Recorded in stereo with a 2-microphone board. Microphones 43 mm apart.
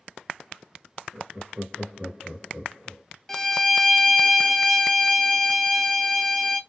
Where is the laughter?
25° right (ahead or behind), 1.4 m.